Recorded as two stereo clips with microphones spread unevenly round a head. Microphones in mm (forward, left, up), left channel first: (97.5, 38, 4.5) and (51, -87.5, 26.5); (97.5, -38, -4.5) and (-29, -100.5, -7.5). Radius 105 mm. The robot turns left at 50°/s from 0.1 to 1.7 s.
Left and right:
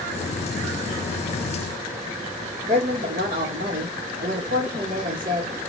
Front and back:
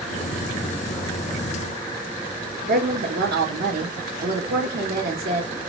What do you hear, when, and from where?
2.7 s a woman speaking: 165° right, 1.0 m